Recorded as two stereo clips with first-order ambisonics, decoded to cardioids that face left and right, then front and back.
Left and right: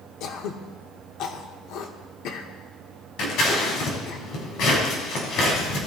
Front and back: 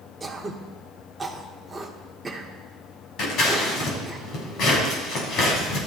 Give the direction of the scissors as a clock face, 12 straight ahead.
10 o'clock.